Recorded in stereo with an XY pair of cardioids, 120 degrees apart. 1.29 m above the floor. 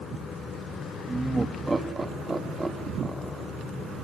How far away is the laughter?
About 2 m.